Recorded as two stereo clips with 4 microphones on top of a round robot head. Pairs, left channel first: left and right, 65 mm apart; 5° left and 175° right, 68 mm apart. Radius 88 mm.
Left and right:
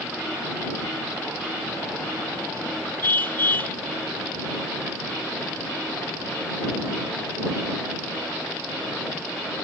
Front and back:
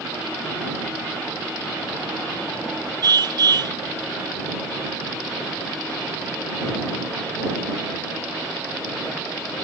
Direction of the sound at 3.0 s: 155° left.